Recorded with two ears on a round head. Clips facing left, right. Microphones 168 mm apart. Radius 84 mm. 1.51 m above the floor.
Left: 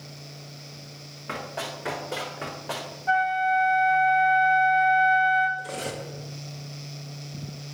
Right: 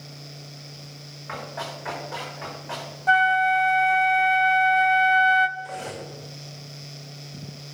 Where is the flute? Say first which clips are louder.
Right 2 dB; 65° right (ahead or behind), 0.6 m.